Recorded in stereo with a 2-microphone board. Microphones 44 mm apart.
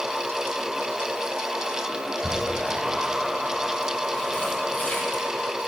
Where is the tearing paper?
35° left (ahead or behind), 1.2 m.